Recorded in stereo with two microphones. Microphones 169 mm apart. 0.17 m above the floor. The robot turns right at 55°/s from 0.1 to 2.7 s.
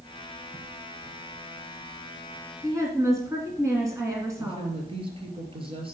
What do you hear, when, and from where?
2.6 s a woman speaking: 15° right (ahead or behind), 1.8 m; by 4.7 s 20° right (ahead or behind), 1.8 m
4.4 s a woman speaking: 35° right (ahead or behind), 3 m